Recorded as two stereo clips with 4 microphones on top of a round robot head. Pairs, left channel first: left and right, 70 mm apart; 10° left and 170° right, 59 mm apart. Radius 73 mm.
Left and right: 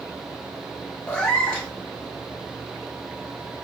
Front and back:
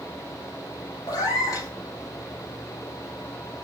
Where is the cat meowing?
15° left, 1.5 m.